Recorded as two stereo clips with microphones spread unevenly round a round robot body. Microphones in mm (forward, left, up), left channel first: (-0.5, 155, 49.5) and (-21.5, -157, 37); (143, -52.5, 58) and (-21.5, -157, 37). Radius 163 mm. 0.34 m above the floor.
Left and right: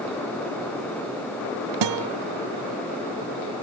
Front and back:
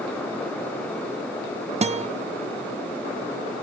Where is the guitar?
85° right, 0.7 m.